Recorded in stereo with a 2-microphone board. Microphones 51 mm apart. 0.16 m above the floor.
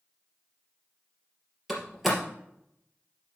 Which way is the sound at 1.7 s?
Centre (ahead or behind).